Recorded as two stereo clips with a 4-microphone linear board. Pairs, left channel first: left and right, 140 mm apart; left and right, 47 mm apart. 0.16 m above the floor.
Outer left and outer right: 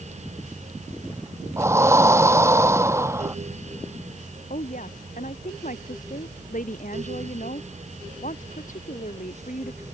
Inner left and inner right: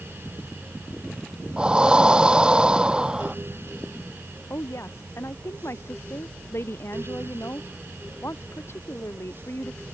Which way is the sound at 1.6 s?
20° right (ahead or behind).